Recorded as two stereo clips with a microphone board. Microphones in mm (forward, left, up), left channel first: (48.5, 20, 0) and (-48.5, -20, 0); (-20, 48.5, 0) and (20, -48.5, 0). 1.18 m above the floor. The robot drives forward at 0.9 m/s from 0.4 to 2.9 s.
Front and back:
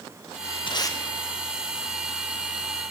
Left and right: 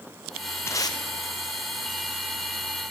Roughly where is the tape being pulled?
Ahead left.